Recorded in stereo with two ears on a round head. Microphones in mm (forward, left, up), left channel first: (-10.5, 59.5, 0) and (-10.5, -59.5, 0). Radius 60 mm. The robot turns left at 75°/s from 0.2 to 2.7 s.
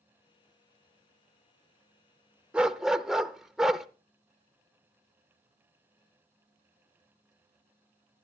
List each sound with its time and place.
2.5 s a dog barking: 10° right (ahead or behind), 0.6 m; by 3.9 s 5° right (ahead or behind), 0.6 m